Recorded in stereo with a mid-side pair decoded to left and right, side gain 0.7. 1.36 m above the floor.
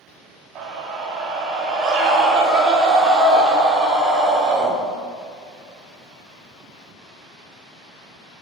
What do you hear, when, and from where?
0.6 s a scream: 50° right, 3.5 m; by 4.7 s 35° right, 5.5 m